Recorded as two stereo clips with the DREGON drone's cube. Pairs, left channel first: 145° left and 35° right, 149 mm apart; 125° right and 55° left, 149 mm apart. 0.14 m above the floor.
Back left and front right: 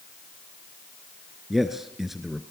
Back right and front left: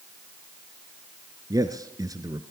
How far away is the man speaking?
About 1.5 m.